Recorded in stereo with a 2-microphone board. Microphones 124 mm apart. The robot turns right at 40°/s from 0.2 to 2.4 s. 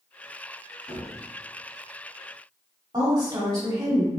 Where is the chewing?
I don't hear chewing.